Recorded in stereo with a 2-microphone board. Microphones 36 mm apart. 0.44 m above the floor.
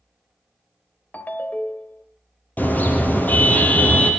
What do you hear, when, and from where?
1.1 s a ringtone: 55° left (ahead or behind), 0.9 m
2.6 s a car horn: 50° left (ahead or behind), 4.5 m